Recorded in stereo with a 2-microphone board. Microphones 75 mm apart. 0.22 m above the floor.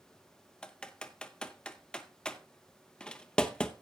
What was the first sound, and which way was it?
Typing on a keyboard, 10° left (ahead or behind).